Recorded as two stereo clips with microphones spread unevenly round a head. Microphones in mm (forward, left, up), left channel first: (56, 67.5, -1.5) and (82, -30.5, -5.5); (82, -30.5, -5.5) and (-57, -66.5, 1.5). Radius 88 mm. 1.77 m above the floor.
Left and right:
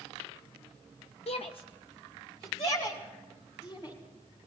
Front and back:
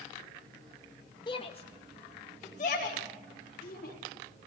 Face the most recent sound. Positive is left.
turn(degrees=65)